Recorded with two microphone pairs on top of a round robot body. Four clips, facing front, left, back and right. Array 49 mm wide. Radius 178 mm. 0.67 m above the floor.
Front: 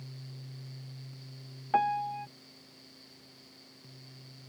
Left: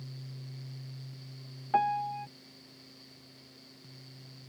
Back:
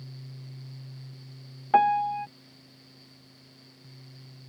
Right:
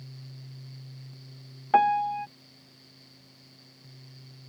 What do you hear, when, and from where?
1.7 s a piano: 135° right